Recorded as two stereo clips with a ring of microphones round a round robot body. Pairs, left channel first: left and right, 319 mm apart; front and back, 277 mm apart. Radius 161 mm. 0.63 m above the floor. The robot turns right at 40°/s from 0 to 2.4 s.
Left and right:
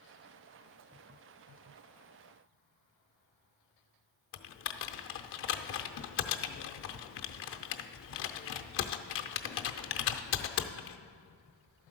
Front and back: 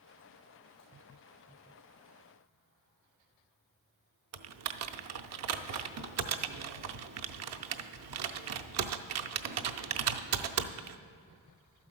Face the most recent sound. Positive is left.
turn(degrees=145)